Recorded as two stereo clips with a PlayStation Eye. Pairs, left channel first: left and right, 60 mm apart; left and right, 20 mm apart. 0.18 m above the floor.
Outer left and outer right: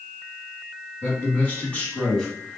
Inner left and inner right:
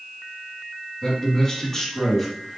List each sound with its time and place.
1.0 s a man speaking: 30° left (ahead or behind), 1.9 m; by 2.6 s centre (ahead or behind), 1.4 m